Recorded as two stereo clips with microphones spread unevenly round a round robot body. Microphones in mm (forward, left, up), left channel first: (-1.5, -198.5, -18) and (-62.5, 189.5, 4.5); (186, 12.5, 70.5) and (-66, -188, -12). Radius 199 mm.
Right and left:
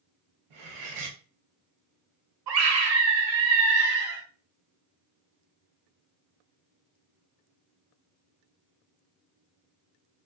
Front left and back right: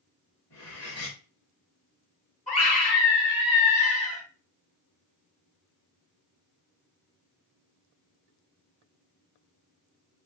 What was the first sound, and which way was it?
Cutlery clinking, 95° left.